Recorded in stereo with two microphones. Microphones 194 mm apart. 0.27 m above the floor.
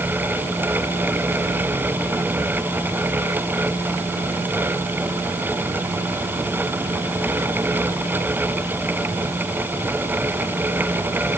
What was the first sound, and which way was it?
Only background noise.